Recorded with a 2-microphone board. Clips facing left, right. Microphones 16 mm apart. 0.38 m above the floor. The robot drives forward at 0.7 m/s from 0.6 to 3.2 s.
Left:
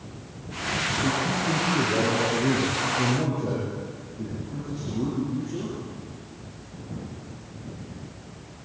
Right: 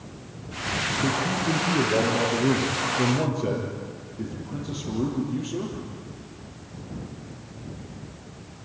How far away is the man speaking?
About 7.5 m.